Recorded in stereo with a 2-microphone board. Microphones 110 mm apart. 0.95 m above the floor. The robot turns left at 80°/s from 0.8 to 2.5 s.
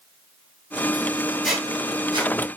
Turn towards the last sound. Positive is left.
turn(degrees=-60)  # may be behind; listen again after turning